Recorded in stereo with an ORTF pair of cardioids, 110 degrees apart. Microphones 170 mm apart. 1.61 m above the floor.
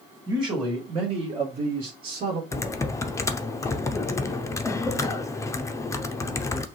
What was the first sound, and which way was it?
A man speaking, 25° right.